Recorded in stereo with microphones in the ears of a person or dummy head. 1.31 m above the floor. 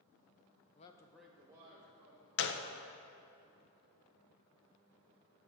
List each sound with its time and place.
0.8 s a man speaking: 25° left (ahead or behind), 0.5 m; by 2.3 s 30° right (ahead or behind), 1.4 m
2.4 s a gunshot: 60° left (ahead or behind), 0.5 m